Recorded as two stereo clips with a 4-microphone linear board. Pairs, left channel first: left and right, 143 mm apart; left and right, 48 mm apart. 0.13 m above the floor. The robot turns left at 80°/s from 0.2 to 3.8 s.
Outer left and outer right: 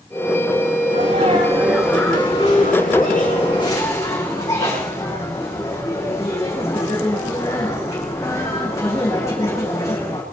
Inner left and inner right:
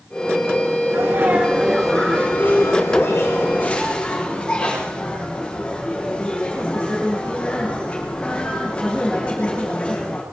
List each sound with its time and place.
0.9 s a sneeze: 105° right, 9.5 m; by 10.2 s 20° left, 9.5 m